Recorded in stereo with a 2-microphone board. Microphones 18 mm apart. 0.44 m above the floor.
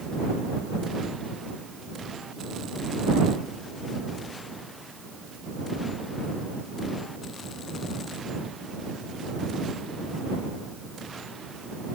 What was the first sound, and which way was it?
Only background noise.